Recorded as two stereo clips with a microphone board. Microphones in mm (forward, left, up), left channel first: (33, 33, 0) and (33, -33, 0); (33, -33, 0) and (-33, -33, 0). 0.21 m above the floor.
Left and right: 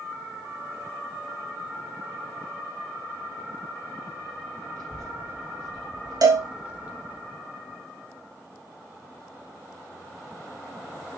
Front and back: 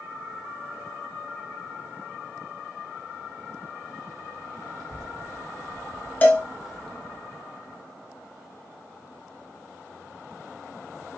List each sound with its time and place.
4.8 s a child speaking: 175° left, 1.5 m; by 7.2 s 45° right, 0.8 m
6.2 s a cowbell: 65° right, 0.8 m